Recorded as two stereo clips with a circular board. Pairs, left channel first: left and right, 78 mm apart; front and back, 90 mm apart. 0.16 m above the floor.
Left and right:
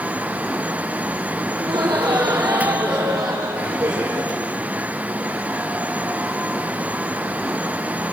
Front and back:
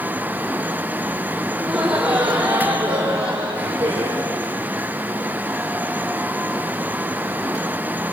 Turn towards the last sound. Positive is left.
turn(degrees=-150)